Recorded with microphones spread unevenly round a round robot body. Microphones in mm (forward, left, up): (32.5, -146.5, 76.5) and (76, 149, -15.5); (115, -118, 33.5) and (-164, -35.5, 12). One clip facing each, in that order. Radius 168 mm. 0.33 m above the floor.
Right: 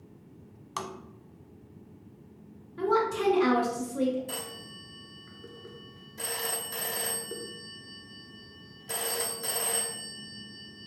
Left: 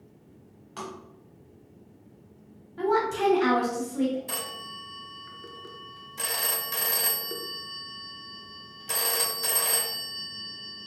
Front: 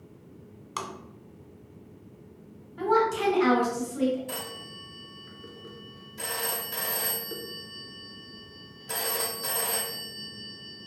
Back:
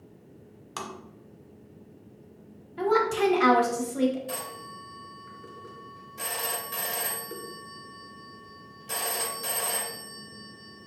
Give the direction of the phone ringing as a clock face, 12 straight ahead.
9 o'clock.